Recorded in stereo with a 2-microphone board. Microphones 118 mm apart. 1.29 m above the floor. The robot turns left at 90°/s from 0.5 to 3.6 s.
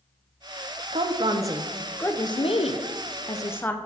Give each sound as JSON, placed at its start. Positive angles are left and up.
{"t": 0.9, "sound": "a woman speaking", "azimuth_deg": -100, "distance_m": 0.5}